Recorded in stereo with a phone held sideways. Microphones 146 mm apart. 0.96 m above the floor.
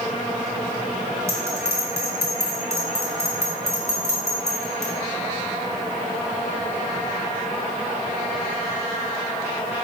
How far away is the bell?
About 2.0 m.